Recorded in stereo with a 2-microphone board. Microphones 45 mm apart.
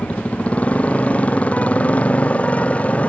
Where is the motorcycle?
30° left (ahead or behind).